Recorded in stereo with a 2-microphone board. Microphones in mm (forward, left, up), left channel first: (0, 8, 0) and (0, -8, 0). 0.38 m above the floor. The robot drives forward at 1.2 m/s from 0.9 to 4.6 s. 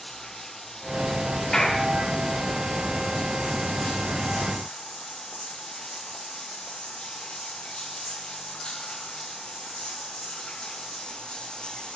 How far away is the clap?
About 8.5 m.